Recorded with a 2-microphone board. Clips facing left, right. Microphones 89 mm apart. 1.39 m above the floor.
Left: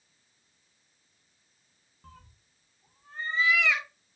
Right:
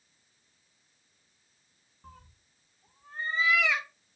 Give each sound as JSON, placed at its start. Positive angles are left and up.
{"t": 2.0, "sound": "a cat meowing", "side_deg": -5, "distance_m": 0.8}